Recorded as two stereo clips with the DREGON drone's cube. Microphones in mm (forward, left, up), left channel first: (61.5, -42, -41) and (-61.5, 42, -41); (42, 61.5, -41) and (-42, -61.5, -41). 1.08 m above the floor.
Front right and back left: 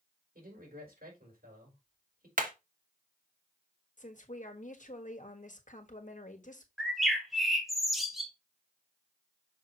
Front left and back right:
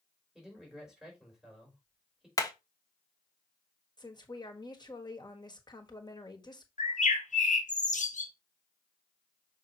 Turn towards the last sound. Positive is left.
turn(degrees=55)